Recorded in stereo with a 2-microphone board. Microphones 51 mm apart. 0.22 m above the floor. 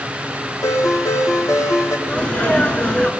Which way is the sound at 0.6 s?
75° left (ahead or behind).